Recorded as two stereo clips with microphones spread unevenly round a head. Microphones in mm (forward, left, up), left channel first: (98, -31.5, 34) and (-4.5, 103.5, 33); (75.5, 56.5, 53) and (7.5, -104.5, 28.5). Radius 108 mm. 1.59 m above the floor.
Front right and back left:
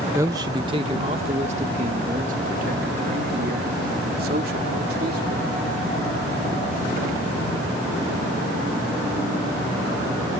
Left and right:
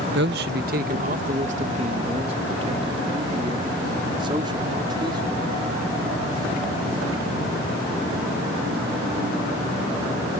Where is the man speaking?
155° right; by 5.5 s 175° left.